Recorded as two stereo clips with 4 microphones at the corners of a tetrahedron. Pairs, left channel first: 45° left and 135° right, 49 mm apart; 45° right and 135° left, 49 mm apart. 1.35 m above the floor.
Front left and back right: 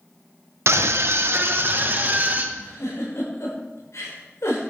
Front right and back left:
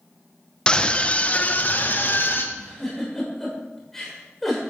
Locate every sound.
0.7 s a scream: 115° right, 1.2 m; by 2.5 s 85° right, 1.8 m
2.5 s a giggle: 40° left, 6 m